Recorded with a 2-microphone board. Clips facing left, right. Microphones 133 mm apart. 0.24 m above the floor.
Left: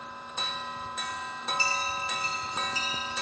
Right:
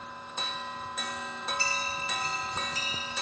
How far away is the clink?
About 2.5 m.